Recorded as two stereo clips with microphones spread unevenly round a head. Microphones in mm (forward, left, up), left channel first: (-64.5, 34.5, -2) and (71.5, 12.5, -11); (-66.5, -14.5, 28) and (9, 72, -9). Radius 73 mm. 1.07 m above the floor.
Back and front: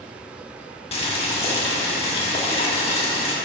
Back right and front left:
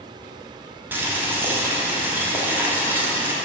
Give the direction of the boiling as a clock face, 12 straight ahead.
8 o'clock.